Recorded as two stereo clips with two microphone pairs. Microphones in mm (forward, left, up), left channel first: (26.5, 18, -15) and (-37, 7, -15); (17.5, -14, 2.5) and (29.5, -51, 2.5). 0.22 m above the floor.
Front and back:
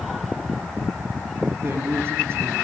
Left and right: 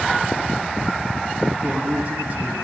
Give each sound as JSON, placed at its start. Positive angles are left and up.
{"t": 1.6, "sound": "a man speaking", "azimuth_deg": -120, "distance_m": 5.0}